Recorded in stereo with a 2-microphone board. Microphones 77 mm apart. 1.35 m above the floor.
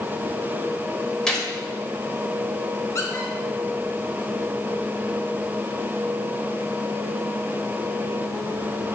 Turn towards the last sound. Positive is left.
turn(degrees=40)  # may be behind; listen again after turning